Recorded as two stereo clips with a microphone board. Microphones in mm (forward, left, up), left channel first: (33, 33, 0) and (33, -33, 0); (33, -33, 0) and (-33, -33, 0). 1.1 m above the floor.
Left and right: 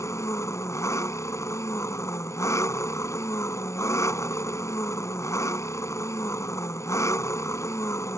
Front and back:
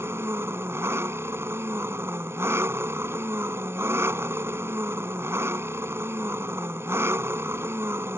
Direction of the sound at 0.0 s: 130° left.